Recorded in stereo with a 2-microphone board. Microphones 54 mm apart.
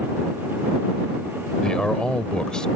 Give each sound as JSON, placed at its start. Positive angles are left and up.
{"t": 1.6, "sound": "a man speaking", "side_deg": 15}